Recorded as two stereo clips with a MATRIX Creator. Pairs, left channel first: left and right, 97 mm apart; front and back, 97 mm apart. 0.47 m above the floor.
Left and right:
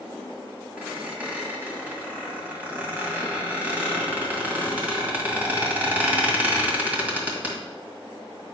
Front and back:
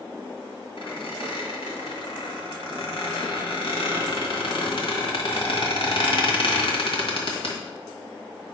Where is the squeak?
20° right, 1.8 m.